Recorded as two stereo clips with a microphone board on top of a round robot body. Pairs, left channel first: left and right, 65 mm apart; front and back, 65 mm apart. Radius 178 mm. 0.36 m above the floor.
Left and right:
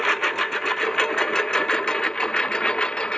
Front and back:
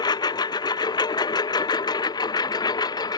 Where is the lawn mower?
5° left; by 3.2 s 15° left.